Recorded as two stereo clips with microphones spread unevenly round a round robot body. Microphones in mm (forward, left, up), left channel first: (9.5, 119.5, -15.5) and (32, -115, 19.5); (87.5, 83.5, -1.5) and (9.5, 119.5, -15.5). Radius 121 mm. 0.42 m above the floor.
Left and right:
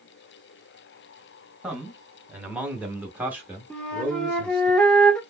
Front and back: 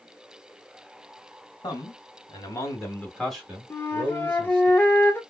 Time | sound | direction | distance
1.6 | a man speaking | 5° left | 1.6 m
3.7 | a flute | 35° left | 0.6 m